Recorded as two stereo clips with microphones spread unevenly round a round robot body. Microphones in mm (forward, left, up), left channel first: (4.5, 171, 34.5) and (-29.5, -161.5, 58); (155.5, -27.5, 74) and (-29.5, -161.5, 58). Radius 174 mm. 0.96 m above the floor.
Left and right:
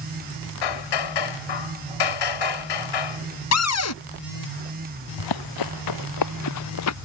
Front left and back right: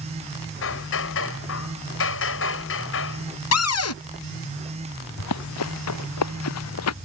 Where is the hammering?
85° left.